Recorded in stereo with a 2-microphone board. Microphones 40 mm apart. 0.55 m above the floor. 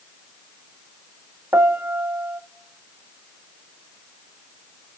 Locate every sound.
1.5 s a piano: 70° right (ahead or behind), 0.5 m